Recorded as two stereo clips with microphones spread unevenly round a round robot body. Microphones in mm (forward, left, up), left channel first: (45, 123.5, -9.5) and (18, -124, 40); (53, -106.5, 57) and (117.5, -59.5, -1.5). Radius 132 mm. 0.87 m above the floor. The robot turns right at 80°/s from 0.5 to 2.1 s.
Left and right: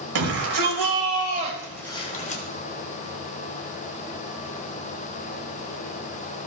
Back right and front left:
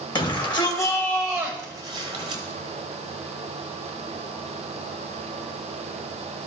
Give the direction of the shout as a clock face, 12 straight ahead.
4 o'clock.